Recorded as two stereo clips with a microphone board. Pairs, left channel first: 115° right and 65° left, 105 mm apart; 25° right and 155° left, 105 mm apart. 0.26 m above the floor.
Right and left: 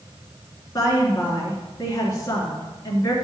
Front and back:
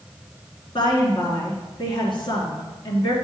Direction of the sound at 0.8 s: 60° right.